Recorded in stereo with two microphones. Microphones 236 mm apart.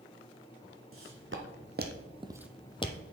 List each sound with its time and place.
0.9 s footsteps: 65° right (ahead or behind), 1.4 m; by 3.1 s 40° left (ahead or behind), 0.8 m